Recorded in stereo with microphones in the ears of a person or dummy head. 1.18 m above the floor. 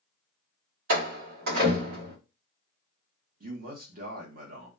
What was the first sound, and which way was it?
A door slam, 55° right (ahead or behind).